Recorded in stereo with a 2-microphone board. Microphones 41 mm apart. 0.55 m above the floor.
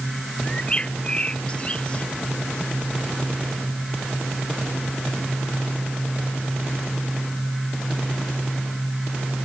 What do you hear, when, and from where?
0.4 s a bird: 25° left (ahead or behind)